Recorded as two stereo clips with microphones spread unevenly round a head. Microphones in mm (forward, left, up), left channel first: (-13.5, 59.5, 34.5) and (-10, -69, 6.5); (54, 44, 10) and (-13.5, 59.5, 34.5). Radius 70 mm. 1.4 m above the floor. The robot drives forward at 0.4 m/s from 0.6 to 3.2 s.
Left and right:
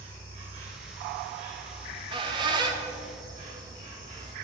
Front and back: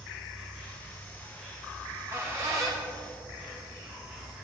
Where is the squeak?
140° right, 1.2 m; by 4.3 s 155° right, 1.6 m.